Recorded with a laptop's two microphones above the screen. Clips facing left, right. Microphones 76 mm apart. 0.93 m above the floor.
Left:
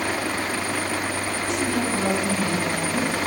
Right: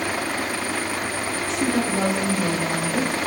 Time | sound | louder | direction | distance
1.4 | a woman speaking | right 2 dB | 35° right (ahead or behind) | 5.5 m